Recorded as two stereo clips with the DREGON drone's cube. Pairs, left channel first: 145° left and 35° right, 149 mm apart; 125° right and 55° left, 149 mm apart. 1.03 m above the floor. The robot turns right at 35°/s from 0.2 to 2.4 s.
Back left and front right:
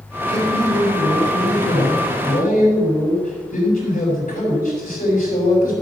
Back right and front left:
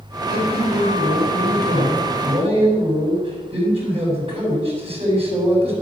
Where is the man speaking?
35° left, 6.5 m; by 5.7 s 110° left, 6.5 m.